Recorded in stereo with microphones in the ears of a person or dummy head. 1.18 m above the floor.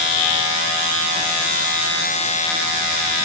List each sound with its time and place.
Only background noise.